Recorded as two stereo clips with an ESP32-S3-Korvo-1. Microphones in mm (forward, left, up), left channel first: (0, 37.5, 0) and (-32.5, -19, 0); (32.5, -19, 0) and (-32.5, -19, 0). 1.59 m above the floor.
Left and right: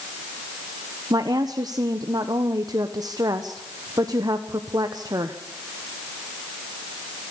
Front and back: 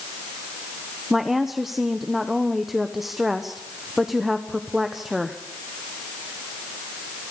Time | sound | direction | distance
1.1 | a woman speaking | 95° right | 1.1 m